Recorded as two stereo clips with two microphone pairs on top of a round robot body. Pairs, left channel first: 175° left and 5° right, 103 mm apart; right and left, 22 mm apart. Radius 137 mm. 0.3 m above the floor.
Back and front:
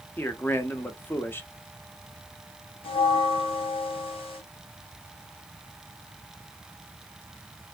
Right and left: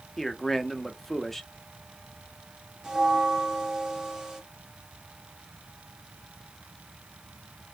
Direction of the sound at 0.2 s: 155° right.